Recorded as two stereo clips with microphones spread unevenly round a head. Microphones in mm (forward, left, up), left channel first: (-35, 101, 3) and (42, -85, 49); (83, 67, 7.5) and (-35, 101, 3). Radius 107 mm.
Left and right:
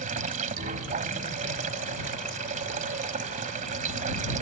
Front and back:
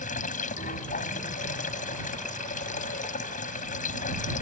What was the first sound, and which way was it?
Running water, 15° right.